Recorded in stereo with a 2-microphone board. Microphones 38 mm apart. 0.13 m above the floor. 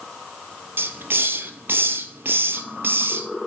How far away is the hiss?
About 0.6 m.